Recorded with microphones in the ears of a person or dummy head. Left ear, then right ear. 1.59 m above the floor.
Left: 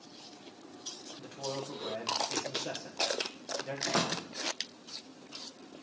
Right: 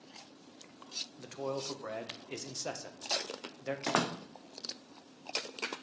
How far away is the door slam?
About 0.7 m.